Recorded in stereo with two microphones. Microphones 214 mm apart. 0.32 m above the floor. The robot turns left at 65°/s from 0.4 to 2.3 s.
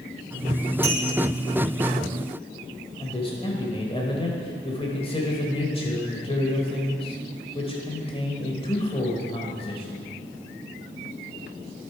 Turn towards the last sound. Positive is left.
turn(degrees=25)  # may be behind; listen again after turning